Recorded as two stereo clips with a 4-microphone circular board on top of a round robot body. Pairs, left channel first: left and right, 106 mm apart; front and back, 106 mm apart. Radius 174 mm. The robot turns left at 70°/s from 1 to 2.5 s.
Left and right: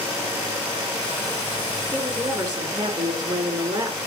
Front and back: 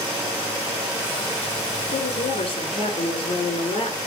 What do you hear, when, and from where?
1.9 s a woman speaking: straight ahead, 3.5 m; by 4.0 s 40° right, 3.5 m